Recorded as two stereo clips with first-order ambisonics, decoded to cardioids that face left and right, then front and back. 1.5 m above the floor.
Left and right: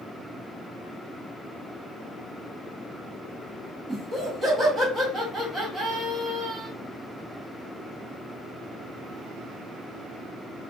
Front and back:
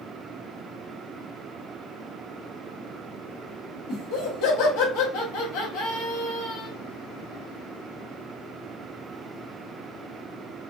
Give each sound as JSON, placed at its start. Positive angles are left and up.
{"t": 3.9, "sound": "laughter", "azimuth_deg": -5, "distance_m": 1.3}